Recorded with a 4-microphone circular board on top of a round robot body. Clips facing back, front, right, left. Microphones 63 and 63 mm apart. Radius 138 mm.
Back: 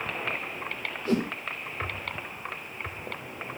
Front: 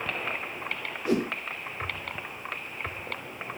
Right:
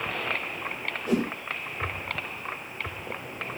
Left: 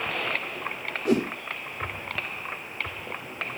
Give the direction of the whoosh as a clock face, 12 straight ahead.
10 o'clock.